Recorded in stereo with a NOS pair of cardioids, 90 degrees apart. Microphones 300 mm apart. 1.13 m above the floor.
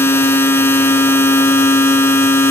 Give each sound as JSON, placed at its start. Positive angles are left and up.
{"t": 0.0, "sound": "a machine running", "azimuth_deg": 10, "distance_m": 1.5}